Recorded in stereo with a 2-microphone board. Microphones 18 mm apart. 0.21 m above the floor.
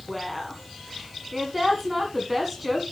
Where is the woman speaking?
10° right (ahead or behind), 1.5 m.